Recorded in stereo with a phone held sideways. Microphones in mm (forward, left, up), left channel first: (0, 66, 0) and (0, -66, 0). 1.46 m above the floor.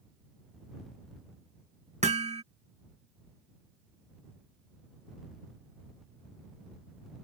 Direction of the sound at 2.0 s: 55° right (ahead or behind).